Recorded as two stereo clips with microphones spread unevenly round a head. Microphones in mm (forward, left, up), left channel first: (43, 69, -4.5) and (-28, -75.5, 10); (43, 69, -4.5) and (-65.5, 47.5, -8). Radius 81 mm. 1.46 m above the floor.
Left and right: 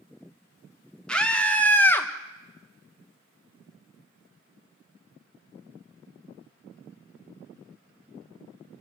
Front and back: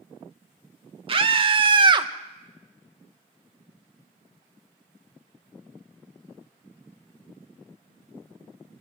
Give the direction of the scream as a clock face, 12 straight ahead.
7 o'clock.